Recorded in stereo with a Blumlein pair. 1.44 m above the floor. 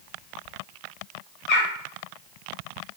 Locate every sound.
1.5 s a bird: 35° left, 4.5 m